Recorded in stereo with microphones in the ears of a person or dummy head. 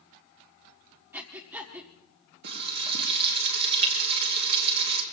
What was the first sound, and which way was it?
Breathing, 10° right (ahead or behind).